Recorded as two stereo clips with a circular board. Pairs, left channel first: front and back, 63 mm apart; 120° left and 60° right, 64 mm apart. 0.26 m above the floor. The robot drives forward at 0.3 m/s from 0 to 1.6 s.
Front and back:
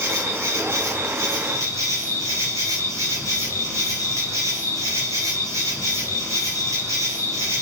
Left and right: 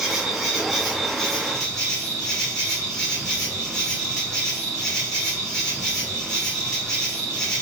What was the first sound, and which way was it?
An insect, 140° right.